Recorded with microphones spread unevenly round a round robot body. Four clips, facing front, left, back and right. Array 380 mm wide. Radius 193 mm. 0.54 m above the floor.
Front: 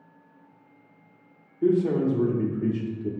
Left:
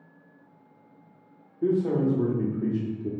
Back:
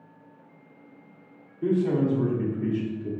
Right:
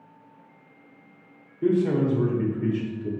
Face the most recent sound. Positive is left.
turn(degrees=50)